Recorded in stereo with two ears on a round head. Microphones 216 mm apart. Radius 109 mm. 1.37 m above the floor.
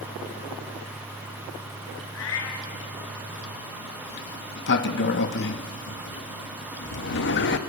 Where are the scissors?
I don't hear scissors.